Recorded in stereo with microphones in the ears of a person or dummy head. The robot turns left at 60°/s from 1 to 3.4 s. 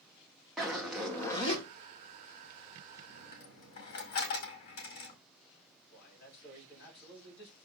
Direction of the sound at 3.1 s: 40° left (ahead or behind).